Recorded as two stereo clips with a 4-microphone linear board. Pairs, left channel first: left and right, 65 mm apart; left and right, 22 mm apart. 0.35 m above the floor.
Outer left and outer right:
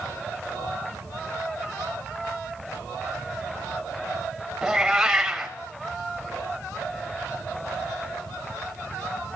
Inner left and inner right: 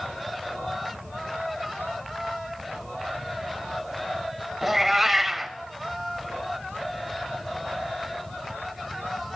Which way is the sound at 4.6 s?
5° right (ahead or behind).